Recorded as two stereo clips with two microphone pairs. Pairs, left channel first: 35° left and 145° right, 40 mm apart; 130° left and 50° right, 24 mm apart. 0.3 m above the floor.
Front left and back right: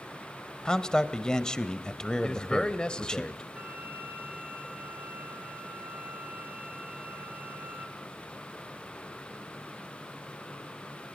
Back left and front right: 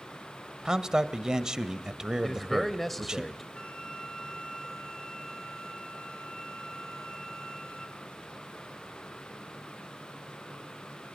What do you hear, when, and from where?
0.7 s a man speaking: 15° right, 1.0 m
2.2 s a man speaking: 60° left, 0.9 m
3.5 s a flute: straight behind, 3.5 m